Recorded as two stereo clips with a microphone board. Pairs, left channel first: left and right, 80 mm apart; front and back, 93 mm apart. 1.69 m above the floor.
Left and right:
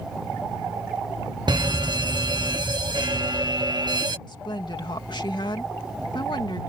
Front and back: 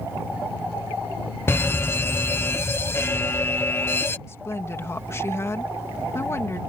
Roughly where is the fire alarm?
Ahead right.